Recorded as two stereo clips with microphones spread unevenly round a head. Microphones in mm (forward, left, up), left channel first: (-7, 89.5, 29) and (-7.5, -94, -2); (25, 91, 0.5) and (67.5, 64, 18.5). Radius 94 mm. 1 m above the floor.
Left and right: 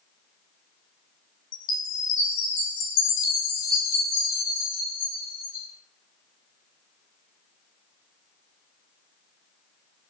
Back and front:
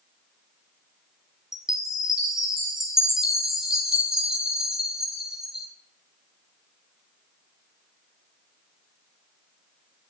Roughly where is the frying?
I don't hear frying.